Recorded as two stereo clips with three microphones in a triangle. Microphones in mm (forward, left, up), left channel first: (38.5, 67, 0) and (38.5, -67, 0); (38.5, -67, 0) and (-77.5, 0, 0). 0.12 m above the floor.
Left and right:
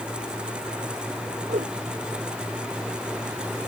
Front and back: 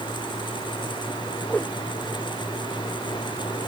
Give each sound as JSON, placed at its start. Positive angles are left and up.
{"t": 1.5, "sound": "a whoosh", "azimuth_deg": -110}